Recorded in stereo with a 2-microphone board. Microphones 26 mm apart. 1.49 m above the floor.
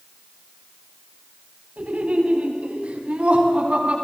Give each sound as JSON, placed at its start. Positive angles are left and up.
{"t": 1.8, "sound": "laughter", "side_deg": -65, "distance_m": 9.5}